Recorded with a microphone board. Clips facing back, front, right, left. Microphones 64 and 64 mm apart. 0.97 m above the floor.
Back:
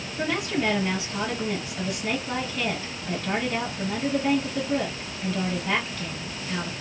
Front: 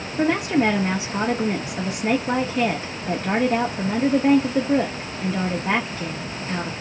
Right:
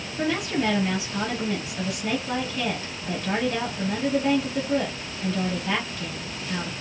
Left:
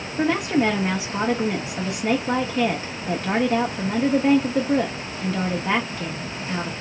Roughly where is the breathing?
No breathing in this recording.